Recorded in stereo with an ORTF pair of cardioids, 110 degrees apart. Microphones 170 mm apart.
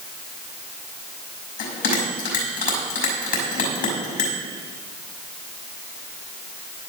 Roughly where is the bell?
Ahead left.